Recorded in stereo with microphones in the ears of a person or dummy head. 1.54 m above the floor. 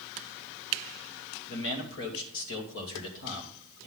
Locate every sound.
1.5 s a man speaking: 75° left (ahead or behind), 2.5 m